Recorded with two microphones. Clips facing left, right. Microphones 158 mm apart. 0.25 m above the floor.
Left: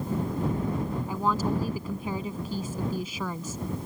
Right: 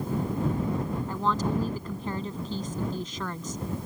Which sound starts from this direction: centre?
A woman speaking, at 1.1 s.